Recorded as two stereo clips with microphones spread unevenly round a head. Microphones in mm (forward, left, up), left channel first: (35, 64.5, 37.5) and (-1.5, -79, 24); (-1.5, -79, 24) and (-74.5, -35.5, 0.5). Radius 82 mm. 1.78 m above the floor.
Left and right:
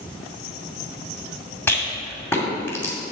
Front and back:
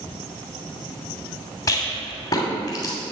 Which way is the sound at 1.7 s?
5° left.